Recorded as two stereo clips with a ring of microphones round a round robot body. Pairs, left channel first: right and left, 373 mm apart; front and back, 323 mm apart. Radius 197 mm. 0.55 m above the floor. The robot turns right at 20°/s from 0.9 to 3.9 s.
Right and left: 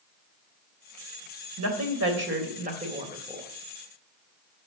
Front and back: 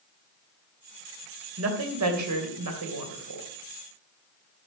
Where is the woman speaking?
135° left, 3 m; by 3.5 s 175° left, 3 m.